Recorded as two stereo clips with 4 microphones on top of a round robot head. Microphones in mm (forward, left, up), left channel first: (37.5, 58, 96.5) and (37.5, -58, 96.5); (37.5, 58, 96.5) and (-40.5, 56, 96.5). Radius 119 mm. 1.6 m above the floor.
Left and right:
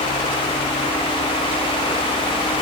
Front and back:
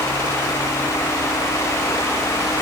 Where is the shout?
No shout in this recording.